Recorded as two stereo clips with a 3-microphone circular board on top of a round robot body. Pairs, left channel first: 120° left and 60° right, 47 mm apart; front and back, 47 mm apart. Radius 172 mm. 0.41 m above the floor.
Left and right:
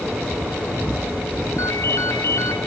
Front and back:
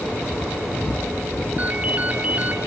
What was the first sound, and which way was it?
A ringtone, 120° left.